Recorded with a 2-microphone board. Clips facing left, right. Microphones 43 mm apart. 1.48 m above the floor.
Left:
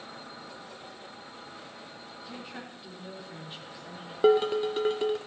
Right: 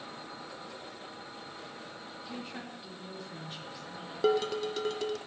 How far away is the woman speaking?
About 2 m.